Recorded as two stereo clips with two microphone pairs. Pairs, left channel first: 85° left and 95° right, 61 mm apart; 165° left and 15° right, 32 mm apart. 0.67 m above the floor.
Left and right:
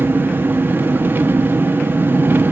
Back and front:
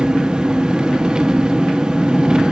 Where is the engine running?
60° right, 1.0 m.